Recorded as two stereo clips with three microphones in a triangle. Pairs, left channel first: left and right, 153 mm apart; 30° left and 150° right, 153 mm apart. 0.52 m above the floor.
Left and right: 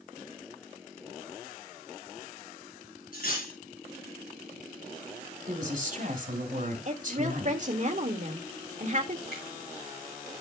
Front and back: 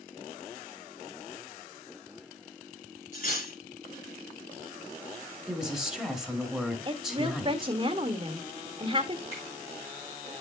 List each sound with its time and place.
3.1 s cutlery clinking: 65° left, 4 m
5.5 s a woman speaking: 65° right, 2.5 m
6.8 s a woman speaking: 105° right, 1.4 m
9.3 s a finger snap: 75° left, 6 m